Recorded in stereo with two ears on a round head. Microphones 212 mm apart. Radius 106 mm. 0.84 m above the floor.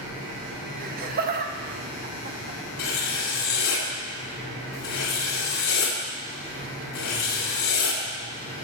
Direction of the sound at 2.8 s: 55° left (ahead or behind).